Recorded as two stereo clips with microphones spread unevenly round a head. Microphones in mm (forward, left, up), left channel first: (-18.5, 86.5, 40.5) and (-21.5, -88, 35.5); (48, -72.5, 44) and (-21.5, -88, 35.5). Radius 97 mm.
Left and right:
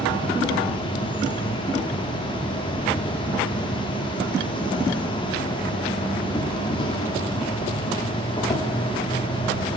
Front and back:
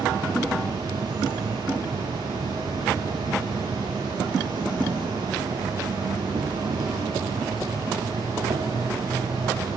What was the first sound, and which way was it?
An insect, 145° left.